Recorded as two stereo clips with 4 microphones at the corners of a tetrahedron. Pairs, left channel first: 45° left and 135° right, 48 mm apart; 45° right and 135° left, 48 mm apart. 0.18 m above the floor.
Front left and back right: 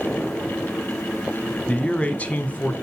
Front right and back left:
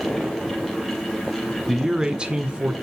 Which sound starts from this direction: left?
A man speaking, at 1.7 s.